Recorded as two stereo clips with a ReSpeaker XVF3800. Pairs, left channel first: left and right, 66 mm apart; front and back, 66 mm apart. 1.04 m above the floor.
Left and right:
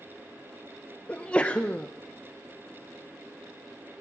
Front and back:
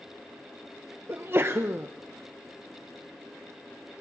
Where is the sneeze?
150° left, 0.7 m.